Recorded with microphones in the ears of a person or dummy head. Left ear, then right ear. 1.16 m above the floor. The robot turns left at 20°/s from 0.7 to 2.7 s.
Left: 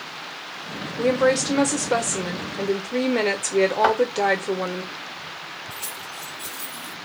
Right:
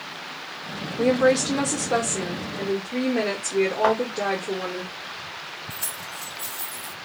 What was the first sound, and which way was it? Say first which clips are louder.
A woman speaking: even; straight behind.